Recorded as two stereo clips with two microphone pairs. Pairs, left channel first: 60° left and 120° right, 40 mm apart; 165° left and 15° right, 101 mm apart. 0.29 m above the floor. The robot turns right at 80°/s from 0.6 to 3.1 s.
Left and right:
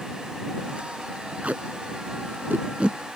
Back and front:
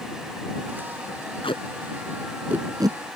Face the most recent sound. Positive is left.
turn(degrees=-40)